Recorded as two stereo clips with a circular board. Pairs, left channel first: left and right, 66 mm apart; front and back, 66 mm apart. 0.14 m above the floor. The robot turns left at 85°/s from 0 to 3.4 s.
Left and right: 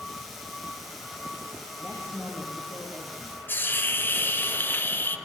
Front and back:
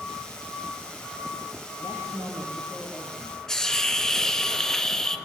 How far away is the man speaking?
About 5.5 m.